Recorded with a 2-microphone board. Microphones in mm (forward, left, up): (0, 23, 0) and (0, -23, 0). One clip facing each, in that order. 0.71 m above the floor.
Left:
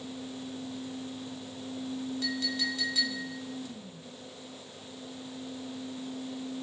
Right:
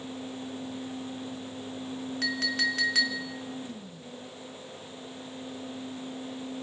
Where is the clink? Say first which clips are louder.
Right 7 dB; 75° right (ahead or behind), 1.0 m.